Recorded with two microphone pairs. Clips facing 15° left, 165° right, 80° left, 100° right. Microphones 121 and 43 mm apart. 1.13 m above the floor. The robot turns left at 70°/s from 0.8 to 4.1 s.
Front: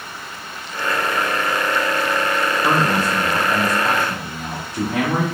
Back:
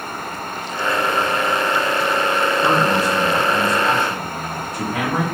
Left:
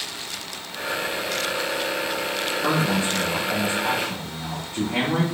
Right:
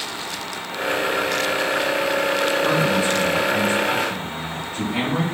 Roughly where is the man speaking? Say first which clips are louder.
Back 1 dB, right 3 dB; behind left.